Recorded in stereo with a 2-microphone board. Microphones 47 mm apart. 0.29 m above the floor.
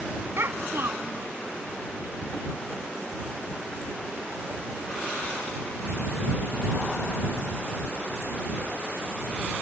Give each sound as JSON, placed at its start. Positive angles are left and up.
{"t": 0.4, "sound": "a child speaking", "side_deg": -60}